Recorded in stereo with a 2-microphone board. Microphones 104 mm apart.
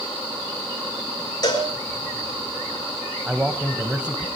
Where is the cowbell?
40° left (ahead or behind), 4.5 m.